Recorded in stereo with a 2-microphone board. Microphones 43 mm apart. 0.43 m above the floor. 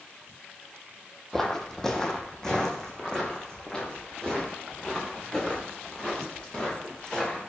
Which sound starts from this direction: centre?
Footsteps, at 1.3 s.